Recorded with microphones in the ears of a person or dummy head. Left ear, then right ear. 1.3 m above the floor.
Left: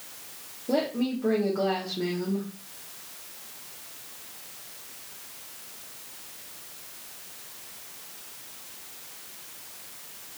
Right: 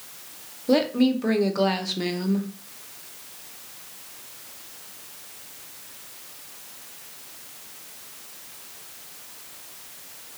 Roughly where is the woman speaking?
Right.